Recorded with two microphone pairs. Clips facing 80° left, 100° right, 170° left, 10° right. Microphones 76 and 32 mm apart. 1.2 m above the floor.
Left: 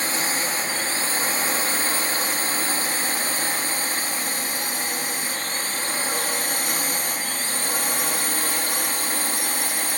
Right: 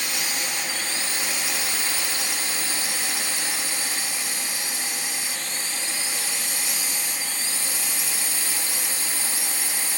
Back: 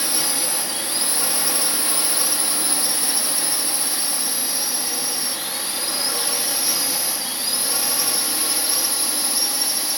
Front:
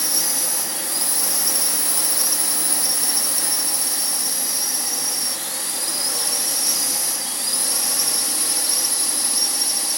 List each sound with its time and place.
0.0 s a drone: 125° left; by 10.0 s 105° left